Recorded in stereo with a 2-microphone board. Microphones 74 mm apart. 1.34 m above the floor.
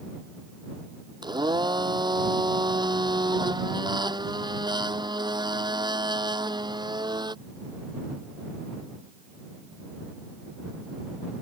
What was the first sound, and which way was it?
A blender, 80° right.